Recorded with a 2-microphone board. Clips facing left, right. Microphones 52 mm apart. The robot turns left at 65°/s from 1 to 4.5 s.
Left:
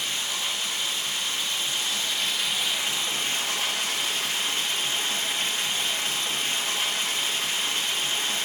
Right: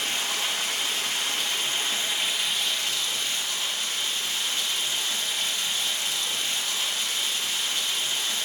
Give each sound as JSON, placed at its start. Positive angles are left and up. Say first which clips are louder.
{"t": 0.0, "sound": "running water", "louder": "right 2 dB", "azimuth_deg": -85, "distance_m": 1.6}